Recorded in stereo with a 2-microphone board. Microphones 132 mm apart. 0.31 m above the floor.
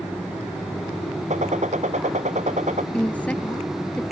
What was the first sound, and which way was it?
A gunshot, 65° right (ahead or behind).